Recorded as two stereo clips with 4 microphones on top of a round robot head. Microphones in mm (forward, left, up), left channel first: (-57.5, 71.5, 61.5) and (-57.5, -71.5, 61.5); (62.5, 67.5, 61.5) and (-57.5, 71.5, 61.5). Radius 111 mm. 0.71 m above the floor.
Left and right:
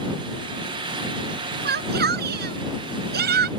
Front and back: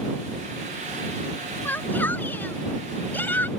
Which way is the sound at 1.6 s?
80° right.